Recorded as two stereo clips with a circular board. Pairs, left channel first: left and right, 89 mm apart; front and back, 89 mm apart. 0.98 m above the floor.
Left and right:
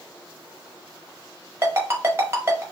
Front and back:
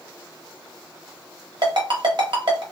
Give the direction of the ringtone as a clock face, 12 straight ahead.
5 o'clock.